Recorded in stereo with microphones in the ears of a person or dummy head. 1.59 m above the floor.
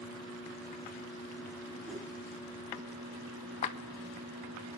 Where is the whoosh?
5° right (ahead or behind), 4.5 m.